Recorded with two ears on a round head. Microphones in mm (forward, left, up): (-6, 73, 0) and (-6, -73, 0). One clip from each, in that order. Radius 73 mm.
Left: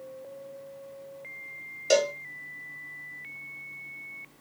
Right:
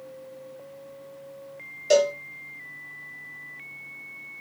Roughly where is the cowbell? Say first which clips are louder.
Right 4 dB; centre.